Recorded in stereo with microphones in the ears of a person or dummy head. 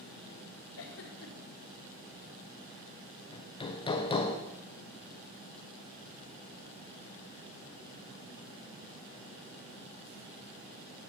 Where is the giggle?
75° left (ahead or behind), 1.5 m.